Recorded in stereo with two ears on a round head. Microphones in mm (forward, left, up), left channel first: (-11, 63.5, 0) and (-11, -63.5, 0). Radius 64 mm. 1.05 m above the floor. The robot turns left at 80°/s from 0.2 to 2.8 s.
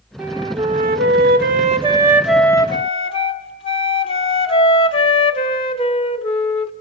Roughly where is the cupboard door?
I don't hear a cupboard door.